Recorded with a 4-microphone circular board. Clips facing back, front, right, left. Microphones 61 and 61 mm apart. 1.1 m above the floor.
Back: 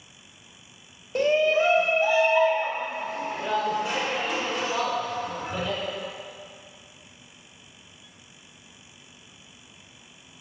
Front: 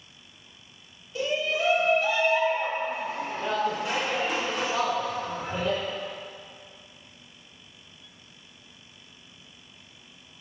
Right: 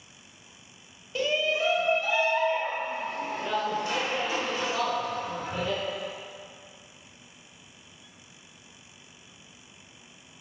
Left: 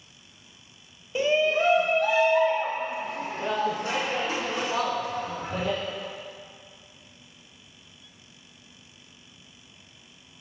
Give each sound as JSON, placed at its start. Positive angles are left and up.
{"t": 1.1, "sound": "a shout", "azimuth_deg": 160, "distance_m": 0.6}